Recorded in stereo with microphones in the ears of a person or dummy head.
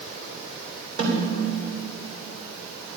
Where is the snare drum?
40° right (ahead or behind), 3 m.